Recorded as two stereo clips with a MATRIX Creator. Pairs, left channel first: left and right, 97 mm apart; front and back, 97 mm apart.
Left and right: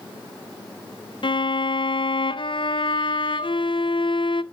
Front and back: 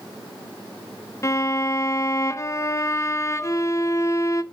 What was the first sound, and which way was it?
A violin, 60° left.